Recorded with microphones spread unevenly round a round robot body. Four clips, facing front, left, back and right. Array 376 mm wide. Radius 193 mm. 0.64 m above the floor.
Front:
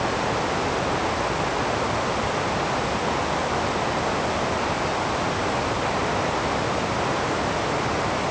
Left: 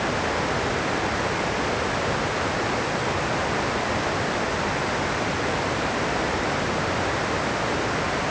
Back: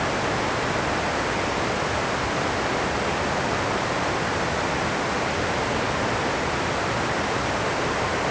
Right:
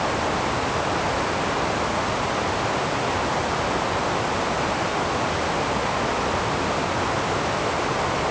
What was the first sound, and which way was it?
Only background noise.